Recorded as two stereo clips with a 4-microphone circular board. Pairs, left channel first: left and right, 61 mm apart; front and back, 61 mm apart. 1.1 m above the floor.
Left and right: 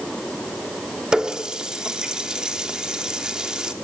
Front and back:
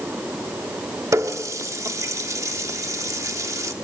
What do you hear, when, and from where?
1.1 s a running tap: 165° right, 1.3 m